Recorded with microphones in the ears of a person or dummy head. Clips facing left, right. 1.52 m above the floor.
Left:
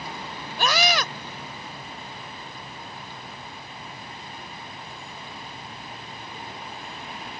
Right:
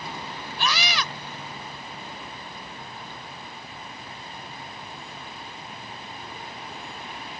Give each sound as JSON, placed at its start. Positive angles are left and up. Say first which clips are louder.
{"t": 0.6, "sound": "a scream", "louder": "left 5 dB", "side_deg": 45}